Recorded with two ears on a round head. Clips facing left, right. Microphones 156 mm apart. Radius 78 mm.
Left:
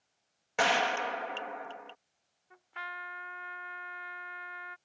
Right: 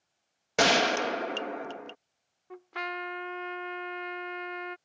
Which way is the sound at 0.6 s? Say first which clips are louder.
Right 4 dB; 50° right (ahead or behind).